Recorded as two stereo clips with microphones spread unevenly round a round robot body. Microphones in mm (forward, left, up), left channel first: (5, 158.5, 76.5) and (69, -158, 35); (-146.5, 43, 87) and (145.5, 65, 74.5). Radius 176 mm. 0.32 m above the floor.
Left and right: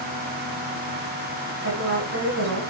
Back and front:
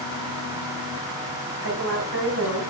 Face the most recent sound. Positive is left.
turn(degrees=-35)